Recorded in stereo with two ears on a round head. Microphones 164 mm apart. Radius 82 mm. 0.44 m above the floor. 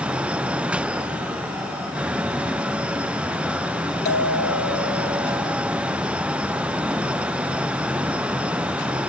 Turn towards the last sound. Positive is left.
turn(degrees=60)  # may be behind; listen again after turning